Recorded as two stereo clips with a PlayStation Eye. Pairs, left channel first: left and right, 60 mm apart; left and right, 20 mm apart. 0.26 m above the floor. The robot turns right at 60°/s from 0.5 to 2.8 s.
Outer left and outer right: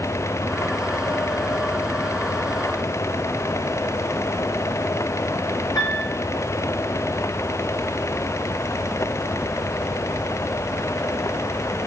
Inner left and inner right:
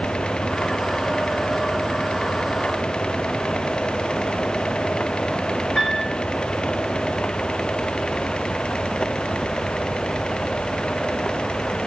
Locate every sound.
5.8 s a piano: 80° left, 5.5 m